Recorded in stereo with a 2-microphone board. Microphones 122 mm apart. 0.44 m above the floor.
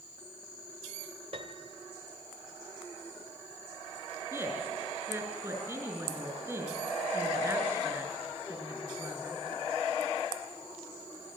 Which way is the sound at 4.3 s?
20° right (ahead or behind).